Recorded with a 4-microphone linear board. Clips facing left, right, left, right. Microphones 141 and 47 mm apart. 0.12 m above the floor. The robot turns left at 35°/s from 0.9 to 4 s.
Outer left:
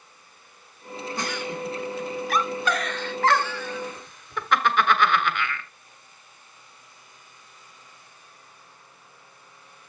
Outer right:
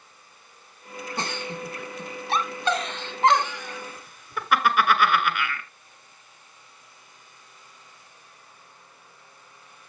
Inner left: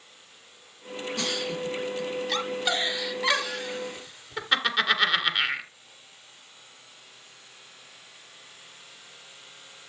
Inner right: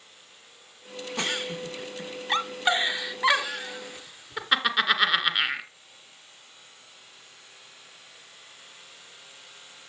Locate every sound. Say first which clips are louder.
1.2 s a giggle: outer left 1 dB, inner right 1 dB; 25° right (ahead or behind), 1.2 m; by 5.7 s 10° right (ahead or behind), 1.2 m